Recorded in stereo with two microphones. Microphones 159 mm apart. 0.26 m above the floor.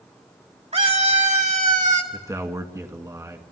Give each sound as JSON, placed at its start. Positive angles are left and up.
{"t": 0.7, "sound": "a scream", "side_deg": -45, "distance_m": 2.0}
{"t": 2.1, "sound": "a man speaking", "side_deg": -20, "distance_m": 2.5}